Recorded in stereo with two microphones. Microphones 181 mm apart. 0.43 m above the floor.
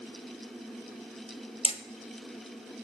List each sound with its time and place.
1.6 s hammering: 35° left (ahead or behind), 0.9 m